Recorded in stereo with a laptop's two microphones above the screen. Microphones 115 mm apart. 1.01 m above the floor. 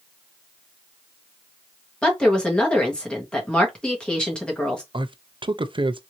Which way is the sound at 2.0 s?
10° left (ahead or behind).